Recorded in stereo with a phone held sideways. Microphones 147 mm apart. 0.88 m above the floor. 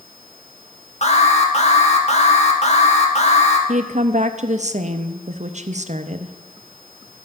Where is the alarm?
50° left (ahead or behind), 1.4 m.